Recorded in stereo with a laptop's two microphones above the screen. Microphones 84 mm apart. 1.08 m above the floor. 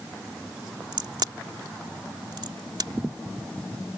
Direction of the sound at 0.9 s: 60° right (ahead or behind).